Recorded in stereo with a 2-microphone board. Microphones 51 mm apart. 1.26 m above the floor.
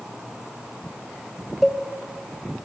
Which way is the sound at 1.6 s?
5° right (ahead or behind).